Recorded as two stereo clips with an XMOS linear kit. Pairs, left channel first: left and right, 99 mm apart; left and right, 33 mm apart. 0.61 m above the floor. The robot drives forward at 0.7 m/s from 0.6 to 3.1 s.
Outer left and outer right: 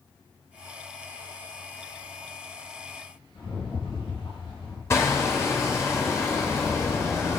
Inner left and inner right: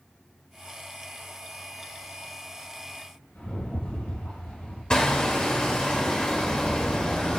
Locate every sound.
3.4 s a rattle: 55° left (ahead or behind), 5.5 m
4.9 s hammering: 30° left (ahead or behind), 2.5 m